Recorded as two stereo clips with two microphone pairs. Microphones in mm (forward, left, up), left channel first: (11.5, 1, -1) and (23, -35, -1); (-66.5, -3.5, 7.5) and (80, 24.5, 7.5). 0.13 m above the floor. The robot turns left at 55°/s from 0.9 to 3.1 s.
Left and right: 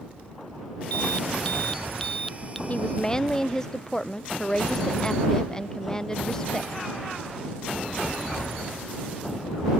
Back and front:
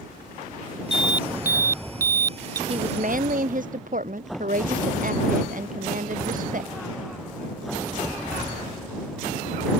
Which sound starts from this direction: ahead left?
A woman speaking, at 2.7 s.